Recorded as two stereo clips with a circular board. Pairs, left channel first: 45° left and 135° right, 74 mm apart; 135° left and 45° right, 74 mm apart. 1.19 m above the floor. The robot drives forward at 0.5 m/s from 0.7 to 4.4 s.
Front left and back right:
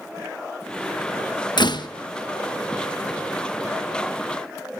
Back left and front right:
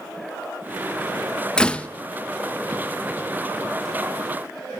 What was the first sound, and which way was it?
A door slam, 55° left.